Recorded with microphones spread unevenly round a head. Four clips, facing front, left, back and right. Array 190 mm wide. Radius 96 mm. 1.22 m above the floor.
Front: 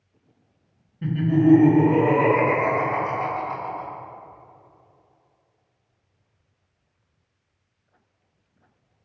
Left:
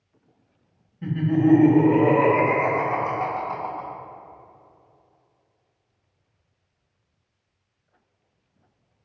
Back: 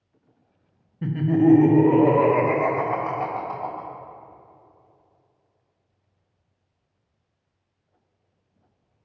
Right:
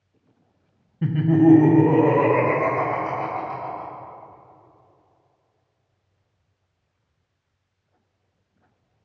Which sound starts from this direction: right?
Laughter, at 1.0 s.